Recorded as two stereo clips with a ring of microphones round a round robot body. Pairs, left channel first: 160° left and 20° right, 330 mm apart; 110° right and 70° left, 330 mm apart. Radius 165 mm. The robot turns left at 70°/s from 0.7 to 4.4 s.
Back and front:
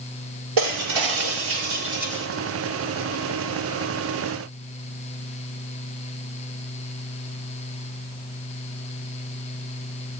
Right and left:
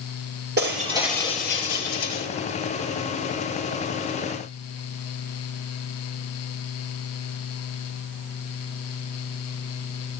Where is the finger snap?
I don't hear a finger snap.